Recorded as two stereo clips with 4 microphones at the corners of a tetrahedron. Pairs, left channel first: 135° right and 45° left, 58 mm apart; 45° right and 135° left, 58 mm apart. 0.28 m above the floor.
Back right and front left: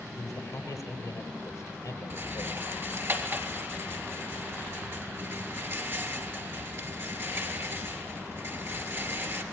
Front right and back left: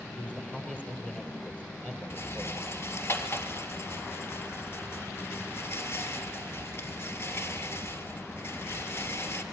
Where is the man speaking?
115° right, 8.5 m.